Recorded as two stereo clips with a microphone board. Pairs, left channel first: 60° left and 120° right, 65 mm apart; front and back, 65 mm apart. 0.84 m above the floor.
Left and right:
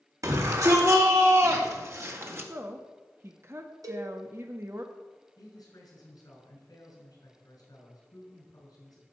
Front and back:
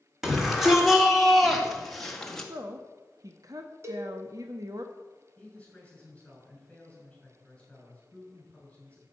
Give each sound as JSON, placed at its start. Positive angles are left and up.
{"t": 0.2, "sound": "a shout", "azimuth_deg": -95, "distance_m": 3.0}
{"t": 2.5, "sound": "a woman speaking", "azimuth_deg": -165, "distance_m": 1.1}
{"t": 3.8, "sound": "a cowbell", "azimuth_deg": -135, "distance_m": 1.9}
{"t": 5.4, "sound": "a man speaking", "azimuth_deg": 75, "distance_m": 6.0}